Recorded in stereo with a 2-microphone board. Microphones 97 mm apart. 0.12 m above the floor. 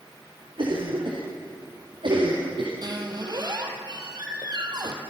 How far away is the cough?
About 5 m.